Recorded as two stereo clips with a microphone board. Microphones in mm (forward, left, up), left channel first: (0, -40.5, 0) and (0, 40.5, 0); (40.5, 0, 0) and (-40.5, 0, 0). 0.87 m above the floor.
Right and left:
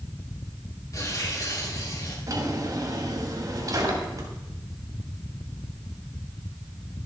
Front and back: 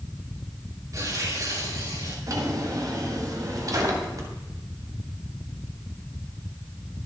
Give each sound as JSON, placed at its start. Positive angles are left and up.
{"t": 0.9, "sound": "tearing paper", "azimuth_deg": -135, "distance_m": 4.5}
{"t": 2.3, "sound": "a drawer", "azimuth_deg": 135, "distance_m": 2.5}